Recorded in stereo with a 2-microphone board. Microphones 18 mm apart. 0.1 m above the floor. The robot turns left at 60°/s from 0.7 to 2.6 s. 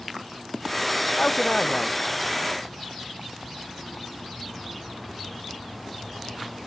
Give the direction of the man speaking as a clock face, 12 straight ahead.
8 o'clock.